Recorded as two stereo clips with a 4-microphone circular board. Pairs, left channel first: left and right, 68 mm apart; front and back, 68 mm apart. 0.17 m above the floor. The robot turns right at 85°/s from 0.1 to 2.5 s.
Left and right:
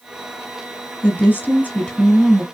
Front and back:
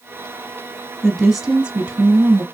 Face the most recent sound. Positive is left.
turn(degrees=-165)